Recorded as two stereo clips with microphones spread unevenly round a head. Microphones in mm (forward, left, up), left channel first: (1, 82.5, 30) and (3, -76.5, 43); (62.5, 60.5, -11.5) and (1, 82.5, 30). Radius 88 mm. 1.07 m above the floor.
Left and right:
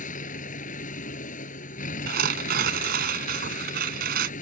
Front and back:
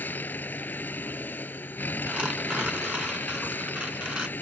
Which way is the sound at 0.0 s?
45° left.